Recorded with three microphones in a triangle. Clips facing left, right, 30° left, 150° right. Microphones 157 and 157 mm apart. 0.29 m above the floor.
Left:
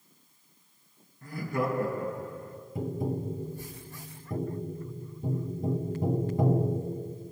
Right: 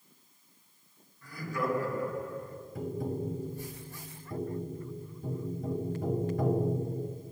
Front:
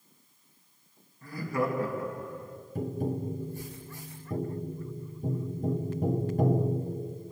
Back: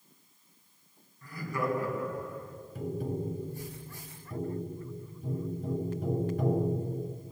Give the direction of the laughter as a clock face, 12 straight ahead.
9 o'clock.